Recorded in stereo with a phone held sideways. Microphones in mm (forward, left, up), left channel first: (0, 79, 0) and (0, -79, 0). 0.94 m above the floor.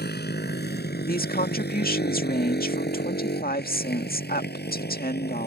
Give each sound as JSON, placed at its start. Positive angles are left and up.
{"t": 0.0, "sound": "a motorcycle", "side_deg": 85}
{"t": 1.1, "sound": "a woman speaking", "side_deg": 65}